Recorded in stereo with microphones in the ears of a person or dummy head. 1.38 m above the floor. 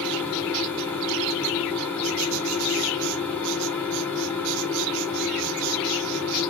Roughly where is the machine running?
Centre.